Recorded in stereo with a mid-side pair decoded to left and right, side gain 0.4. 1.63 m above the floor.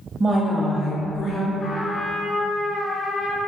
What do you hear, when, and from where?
0.2 s a woman speaking: 40° right, 0.6 m; by 1.5 s 55° left, 1.0 m
1.6 s a trumpet: 30° left, 0.6 m